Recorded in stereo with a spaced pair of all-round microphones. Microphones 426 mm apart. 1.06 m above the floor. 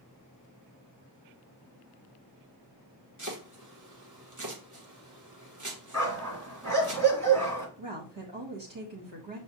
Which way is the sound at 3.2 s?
45° right (ahead or behind).